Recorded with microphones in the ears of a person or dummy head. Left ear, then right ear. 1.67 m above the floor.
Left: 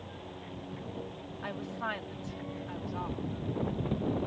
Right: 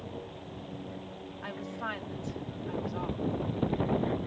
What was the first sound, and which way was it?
A woman speaking, 5° left (ahead or behind).